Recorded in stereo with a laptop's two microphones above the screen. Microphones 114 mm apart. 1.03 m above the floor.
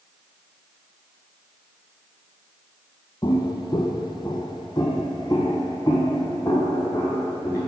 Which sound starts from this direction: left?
Footsteps, at 3.2 s.